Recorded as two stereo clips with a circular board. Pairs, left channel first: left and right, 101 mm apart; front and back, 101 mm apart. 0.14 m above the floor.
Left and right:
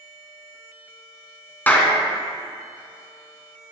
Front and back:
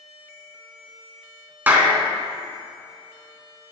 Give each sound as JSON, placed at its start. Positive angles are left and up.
{"t": 1.7, "sound": "a clap", "azimuth_deg": 140, "distance_m": 1.1}